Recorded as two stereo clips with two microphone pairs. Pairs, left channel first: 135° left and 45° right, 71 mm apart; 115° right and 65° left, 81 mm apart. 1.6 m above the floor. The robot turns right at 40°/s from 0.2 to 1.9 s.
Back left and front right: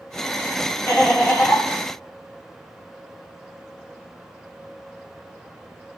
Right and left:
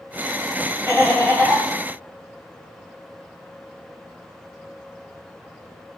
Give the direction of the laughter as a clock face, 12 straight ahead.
6 o'clock.